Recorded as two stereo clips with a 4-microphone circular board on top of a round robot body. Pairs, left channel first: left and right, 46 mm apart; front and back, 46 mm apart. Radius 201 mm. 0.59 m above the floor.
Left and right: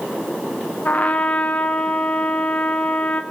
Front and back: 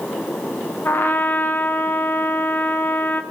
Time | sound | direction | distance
0.8 | a trumpet | 30° left | 1.8 m